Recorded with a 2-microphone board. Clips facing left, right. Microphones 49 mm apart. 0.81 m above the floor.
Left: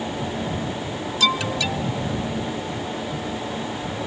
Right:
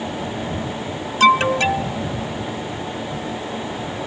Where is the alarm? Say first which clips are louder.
Right 9 dB; 45° right (ahead or behind).